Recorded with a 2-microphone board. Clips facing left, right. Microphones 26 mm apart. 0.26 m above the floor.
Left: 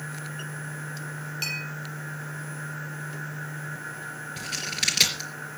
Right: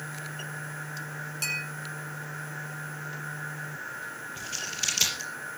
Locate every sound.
1.4 s a clink: 25° left (ahead or behind), 7 m
4.4 s scissors: 60° left (ahead or behind), 3.5 m